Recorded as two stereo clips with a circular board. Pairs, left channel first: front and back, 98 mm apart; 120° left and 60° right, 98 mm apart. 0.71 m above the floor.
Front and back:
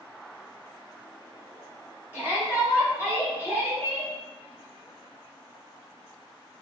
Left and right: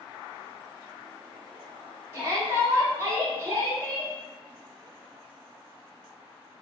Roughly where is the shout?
Behind right.